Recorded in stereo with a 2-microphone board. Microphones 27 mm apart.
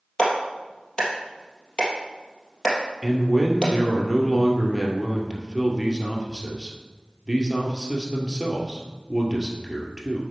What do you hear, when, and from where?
0.2 s a clap: 25° left (ahead or behind), 3 m
3.0 s a man speaking: 10° right (ahead or behind), 1.8 m